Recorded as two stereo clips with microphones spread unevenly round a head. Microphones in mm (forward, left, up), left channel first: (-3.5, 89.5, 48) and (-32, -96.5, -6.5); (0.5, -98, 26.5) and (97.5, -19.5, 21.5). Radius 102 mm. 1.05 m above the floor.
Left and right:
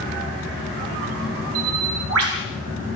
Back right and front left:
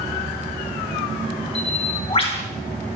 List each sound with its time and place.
1.6 s a bird: 100° right, 5.5 m